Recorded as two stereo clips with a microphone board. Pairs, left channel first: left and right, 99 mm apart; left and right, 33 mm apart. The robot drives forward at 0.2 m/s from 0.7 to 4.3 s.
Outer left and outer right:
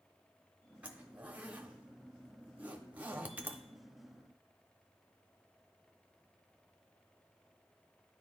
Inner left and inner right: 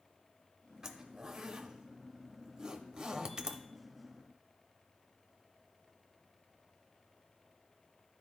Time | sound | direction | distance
0.8 | a zipper | 15° right (ahead or behind) | 0.8 m